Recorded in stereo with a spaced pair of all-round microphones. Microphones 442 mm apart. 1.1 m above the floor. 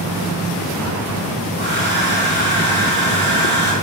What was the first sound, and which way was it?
A hair dryer, 25° right (ahead or behind).